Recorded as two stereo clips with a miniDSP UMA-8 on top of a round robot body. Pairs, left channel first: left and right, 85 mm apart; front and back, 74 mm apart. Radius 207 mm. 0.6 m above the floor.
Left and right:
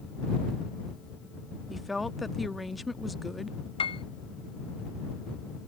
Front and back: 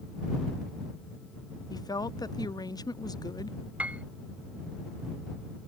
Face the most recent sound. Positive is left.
turn(degrees=105)